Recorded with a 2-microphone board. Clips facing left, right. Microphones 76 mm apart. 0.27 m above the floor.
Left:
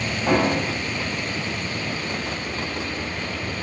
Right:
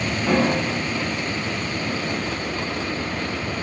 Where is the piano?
30° left (ahead or behind), 1.4 m.